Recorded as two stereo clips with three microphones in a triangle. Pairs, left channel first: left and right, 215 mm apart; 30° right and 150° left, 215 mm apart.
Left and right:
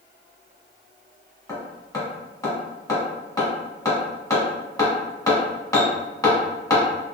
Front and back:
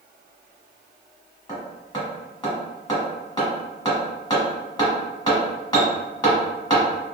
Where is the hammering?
25° left, 1.3 m.